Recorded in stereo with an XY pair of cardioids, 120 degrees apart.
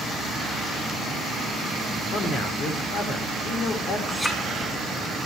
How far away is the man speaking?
About 4.5 m.